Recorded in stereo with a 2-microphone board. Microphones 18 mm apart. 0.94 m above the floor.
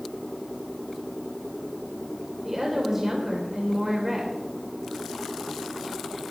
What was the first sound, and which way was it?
A woman speaking, 15° right (ahead or behind).